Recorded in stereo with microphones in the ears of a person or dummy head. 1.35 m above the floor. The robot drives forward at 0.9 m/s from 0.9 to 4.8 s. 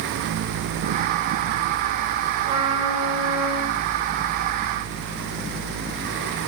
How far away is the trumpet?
About 6.5 m.